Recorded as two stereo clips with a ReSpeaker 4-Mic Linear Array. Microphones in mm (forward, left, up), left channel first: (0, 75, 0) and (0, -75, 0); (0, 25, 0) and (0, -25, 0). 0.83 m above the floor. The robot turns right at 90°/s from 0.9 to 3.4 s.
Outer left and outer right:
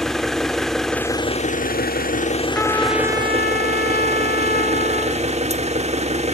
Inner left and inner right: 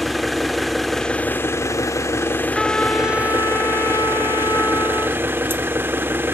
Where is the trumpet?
5° left, 1.2 m; by 5.2 s 85° left, 1.2 m.